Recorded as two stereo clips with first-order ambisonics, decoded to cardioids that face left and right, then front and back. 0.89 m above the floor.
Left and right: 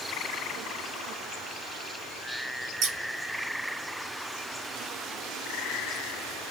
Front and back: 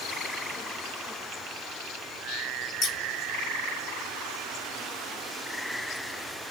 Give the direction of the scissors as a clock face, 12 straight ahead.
2 o'clock.